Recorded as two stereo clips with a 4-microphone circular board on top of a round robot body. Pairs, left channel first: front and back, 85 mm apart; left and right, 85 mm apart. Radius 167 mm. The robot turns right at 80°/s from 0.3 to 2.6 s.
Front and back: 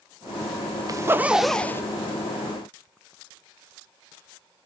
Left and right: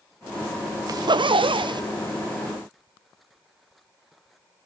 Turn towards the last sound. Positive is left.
turn(degrees=0)